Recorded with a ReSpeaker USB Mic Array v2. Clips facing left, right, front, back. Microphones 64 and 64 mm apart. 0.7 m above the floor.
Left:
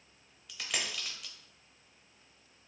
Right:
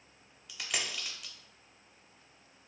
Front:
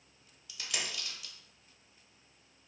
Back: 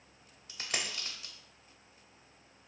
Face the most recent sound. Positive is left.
turn(degrees=-175)